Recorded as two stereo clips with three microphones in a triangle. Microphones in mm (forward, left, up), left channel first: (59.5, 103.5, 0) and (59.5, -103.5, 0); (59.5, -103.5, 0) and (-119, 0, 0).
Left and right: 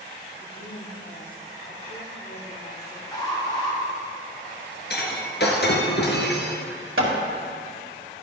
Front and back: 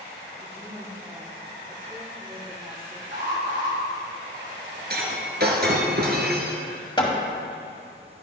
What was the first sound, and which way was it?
A woman speaking, 80° left.